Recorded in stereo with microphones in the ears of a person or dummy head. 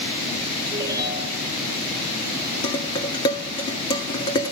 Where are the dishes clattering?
25° left (ahead or behind), 2 m.